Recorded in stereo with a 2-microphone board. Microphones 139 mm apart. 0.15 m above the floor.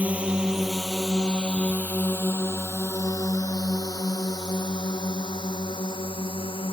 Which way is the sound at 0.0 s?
10° right (ahead or behind).